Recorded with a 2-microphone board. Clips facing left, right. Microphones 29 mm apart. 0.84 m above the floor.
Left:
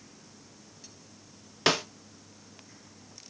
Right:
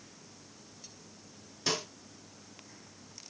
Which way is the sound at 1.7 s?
70° left (ahead or behind).